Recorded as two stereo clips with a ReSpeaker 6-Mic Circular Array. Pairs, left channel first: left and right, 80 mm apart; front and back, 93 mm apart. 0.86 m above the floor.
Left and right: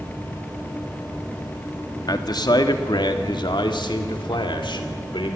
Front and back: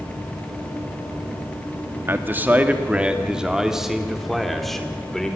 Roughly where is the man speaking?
Behind left.